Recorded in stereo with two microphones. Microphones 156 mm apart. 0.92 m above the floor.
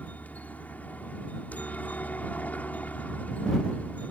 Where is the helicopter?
10° left (ahead or behind).